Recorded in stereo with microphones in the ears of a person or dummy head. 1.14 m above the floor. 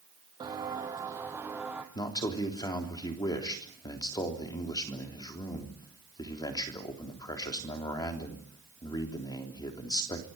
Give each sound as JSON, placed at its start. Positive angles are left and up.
{"t": 0.4, "sound": "footsteps", "side_deg": -20, "distance_m": 3.0}
{"t": 1.9, "sound": "a man speaking", "side_deg": 20, "distance_m": 3.5}